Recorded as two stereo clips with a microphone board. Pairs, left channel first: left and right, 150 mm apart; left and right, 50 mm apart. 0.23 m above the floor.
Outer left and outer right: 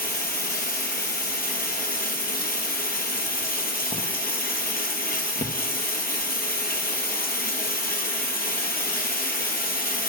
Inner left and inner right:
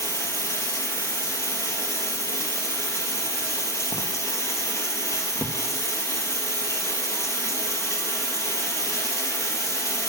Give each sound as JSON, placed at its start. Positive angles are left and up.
{"t": 0.0, "sound": "running water", "side_deg": 85, "distance_m": 1.2}